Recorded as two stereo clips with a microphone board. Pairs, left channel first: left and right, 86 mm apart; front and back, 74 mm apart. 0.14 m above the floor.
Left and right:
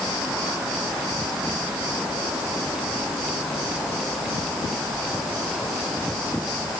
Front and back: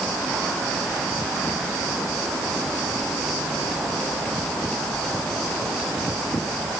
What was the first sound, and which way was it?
Only background noise.